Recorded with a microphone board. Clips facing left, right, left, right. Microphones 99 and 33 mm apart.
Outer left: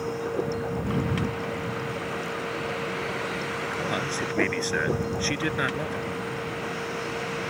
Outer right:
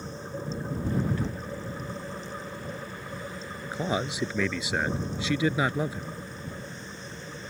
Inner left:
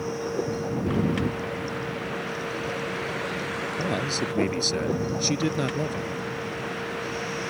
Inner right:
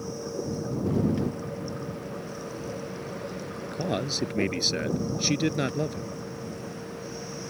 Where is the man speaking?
10° right (ahead or behind).